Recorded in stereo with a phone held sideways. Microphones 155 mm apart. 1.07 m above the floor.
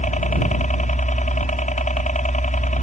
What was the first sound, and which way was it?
A helicopter, 55° left (ahead or behind).